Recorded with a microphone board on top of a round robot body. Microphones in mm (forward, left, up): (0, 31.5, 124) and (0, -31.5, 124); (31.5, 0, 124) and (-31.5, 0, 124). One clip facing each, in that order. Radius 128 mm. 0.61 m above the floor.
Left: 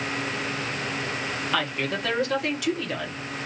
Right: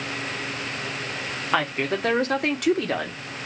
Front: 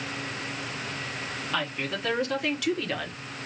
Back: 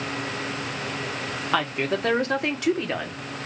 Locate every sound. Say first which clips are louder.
1.5 s a woman speaking: right 5 dB, back 7 dB; 150° right, 1.5 m; by 3.2 s 105° right, 1.2 m